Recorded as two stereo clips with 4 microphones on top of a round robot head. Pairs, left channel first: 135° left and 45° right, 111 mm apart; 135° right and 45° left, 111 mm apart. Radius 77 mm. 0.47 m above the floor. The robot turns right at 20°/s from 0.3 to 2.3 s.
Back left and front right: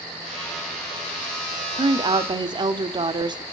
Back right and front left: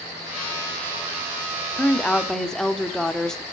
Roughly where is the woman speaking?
Ahead right.